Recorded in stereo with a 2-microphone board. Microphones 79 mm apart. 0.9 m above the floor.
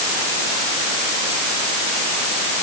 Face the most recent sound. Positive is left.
No sound to turn to.